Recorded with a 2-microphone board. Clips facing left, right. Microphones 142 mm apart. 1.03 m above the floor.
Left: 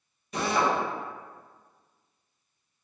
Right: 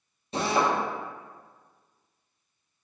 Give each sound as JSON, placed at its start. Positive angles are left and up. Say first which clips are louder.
{"t": 0.3, "sound": "a drill", "louder": "right 1 dB", "side_deg": -30, "distance_m": 0.8}